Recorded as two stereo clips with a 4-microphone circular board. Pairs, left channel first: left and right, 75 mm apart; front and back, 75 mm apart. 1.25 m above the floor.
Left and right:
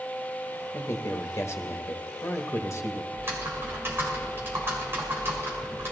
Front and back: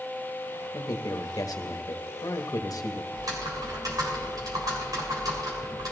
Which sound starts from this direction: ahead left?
A man speaking, at 0.7 s.